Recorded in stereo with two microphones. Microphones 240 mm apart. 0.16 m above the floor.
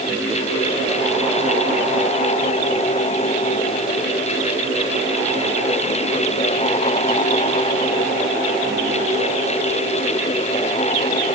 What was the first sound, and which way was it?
Only background noise.